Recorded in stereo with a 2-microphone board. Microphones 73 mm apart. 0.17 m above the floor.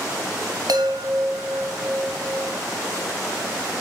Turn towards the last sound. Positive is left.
turn(degrees=-65)  # may be behind; listen again after turning